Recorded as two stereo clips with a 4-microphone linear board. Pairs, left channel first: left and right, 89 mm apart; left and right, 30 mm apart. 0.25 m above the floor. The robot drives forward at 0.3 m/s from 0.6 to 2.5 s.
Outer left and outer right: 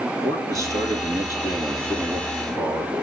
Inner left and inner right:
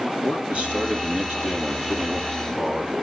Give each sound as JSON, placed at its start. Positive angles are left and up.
{"t": 0.2, "sound": "a man speaking", "side_deg": -35, "distance_m": 5.5}